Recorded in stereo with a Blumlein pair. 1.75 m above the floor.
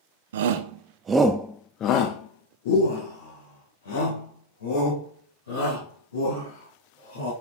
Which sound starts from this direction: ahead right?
A shout, at 0.3 s.